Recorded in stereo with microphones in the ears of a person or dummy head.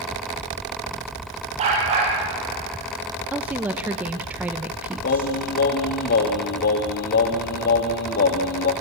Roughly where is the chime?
No chime in this recording.